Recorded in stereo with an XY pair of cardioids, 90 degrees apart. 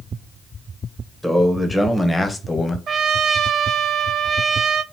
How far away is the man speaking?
About 1.8 m.